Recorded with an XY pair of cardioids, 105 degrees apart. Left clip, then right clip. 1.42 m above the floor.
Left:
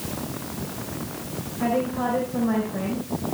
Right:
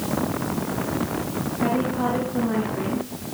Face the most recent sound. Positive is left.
turn(degrees=60)